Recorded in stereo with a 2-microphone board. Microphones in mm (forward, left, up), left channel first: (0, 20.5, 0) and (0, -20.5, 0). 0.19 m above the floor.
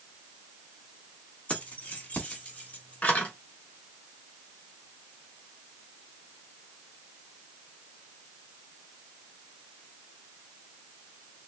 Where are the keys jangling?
40° left (ahead or behind), 1.2 m.